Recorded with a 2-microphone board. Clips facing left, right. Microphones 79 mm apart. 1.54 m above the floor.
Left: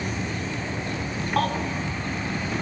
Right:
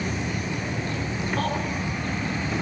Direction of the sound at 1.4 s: 75° left (ahead or behind).